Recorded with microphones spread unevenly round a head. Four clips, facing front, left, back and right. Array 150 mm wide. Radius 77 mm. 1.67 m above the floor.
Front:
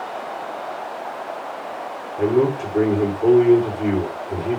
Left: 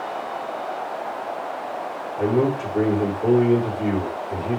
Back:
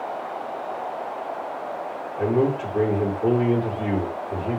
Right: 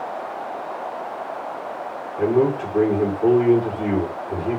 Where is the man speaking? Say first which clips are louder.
Right 2 dB, front 3 dB; 50° right, 5 m.